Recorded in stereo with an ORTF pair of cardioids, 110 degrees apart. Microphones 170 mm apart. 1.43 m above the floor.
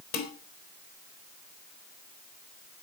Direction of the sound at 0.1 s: 70° left.